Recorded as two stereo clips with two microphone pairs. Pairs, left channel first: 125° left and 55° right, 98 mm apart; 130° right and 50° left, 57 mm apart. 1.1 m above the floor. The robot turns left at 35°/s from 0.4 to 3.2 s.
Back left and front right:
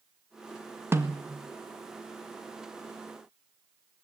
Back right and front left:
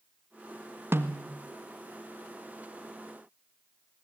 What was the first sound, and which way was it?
A snare drum, 5° left.